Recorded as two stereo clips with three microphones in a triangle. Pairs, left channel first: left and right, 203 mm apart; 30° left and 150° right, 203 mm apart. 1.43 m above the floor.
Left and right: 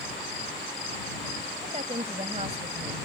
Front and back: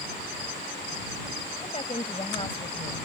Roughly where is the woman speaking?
Ahead right.